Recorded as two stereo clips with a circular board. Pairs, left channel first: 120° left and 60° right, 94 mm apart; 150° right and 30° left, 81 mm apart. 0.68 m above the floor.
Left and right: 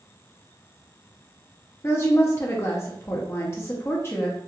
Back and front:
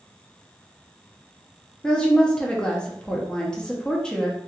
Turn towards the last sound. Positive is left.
turn(degrees=140)